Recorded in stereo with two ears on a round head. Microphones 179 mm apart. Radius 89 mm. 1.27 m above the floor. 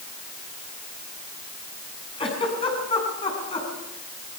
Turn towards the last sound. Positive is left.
turn(degrees=30)  # may be behind; listen again after turning